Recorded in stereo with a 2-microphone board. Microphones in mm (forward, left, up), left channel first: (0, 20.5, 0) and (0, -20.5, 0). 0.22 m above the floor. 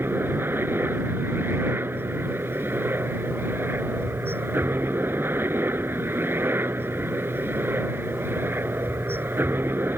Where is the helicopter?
60° right (ahead or behind).